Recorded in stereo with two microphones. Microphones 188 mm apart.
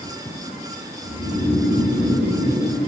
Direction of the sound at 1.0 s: 30° left (ahead or behind).